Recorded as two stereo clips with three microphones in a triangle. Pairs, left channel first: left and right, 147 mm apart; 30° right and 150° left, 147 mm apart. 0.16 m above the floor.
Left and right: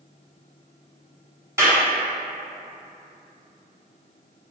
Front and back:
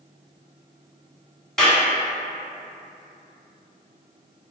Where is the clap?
110° right, 1.3 m.